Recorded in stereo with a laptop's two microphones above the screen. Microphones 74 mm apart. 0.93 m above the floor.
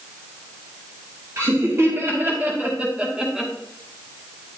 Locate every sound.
1.4 s laughter: 40° right (ahead or behind), 2 m; by 3.5 s 5° right (ahead or behind), 1.7 m